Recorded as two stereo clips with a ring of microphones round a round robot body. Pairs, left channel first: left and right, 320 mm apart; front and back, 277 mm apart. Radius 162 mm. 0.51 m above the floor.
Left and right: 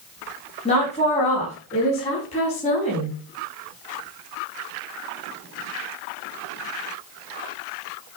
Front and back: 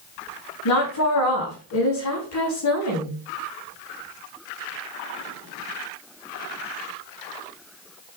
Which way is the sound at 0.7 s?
20° left.